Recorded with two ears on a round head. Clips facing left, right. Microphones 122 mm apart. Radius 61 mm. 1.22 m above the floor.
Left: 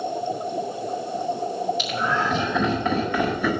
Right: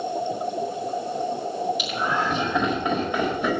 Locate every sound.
1.8 s laughter: 10° right (ahead or behind), 4.5 m; by 3.5 s 20° right (ahead or behind), 5 m